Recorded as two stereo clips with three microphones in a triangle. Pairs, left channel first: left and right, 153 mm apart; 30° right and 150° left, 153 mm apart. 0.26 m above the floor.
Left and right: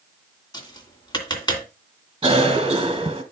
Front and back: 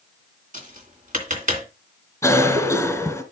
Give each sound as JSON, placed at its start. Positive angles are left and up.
{"t": 0.5, "sound": "tapping", "azimuth_deg": 145, "distance_m": 2.5}
{"t": 2.2, "sound": "a cough", "azimuth_deg": -90, "distance_m": 1.4}